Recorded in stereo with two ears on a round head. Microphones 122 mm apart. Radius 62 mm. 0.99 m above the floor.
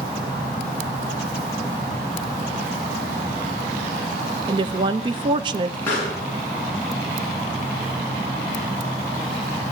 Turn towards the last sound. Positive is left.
turn(degrees=15)  # may be behind; listen again after turning